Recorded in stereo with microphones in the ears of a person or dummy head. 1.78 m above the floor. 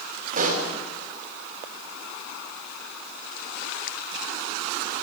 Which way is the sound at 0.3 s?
40° right (ahead or behind).